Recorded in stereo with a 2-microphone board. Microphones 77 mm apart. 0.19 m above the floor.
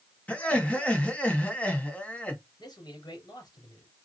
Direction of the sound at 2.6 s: 60° left (ahead or behind).